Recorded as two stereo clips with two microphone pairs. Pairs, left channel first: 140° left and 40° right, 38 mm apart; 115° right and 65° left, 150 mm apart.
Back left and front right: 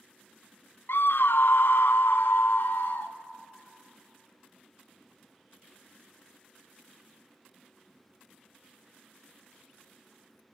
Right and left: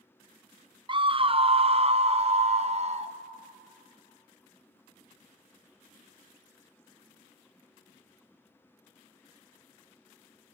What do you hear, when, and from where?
0.9 s a scream: 120° left, 0.5 m; by 3.1 s 105° left, 1.7 m